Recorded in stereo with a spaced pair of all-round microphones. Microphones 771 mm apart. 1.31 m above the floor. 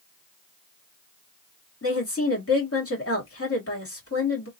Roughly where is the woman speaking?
Centre.